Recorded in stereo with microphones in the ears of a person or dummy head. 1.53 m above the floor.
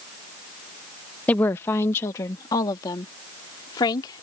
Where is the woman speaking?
10° left (ahead or behind); by 4.2 s 25° left (ahead or behind).